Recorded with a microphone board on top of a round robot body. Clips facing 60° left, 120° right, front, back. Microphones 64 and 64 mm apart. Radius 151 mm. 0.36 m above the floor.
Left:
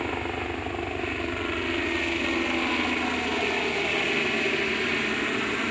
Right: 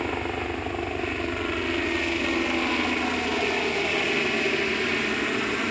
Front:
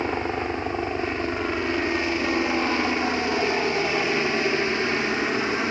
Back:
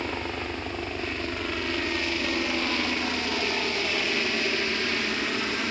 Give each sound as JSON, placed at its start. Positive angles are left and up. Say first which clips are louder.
{"t": 0.0, "sound": "a helicopter", "louder": "right 1 dB, front 6 dB", "azimuth_deg": -30}